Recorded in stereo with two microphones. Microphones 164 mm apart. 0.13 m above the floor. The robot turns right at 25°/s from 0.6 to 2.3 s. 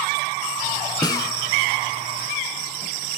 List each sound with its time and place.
1.0 s a snare drum: 25° left (ahead or behind), 0.8 m; by 1.3 s 20° left (ahead or behind), 0.8 m